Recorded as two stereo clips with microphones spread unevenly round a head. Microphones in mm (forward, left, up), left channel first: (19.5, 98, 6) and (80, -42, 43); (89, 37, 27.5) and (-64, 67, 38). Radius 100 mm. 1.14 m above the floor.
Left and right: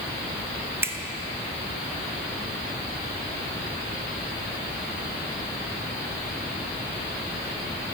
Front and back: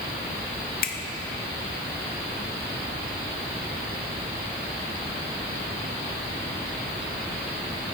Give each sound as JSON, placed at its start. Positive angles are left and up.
{"t": 0.8, "sound": "a finger snap", "azimuth_deg": 10, "distance_m": 1.2}